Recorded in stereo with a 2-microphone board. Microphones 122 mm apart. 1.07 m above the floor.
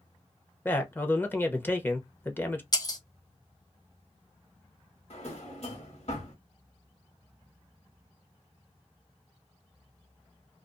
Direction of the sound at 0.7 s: 15° left (ahead or behind).